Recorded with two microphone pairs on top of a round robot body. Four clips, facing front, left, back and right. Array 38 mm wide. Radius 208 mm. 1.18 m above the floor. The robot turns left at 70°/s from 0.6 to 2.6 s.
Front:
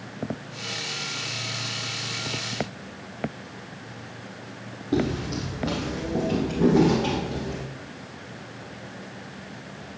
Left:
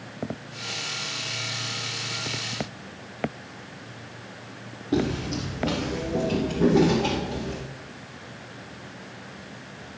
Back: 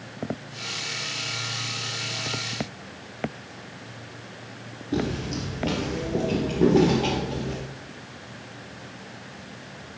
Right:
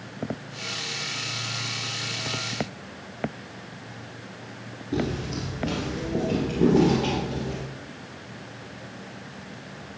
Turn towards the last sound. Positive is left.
turn(degrees=-155)